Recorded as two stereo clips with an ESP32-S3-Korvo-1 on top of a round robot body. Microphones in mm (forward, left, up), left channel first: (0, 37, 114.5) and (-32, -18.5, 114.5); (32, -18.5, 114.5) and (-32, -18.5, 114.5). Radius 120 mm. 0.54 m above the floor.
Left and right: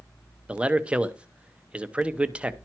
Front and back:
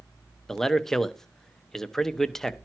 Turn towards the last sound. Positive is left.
turn(degrees=-75)